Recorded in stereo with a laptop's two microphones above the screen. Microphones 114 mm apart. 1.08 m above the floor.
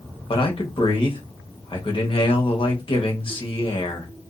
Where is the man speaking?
50° left (ahead or behind), 1.1 m.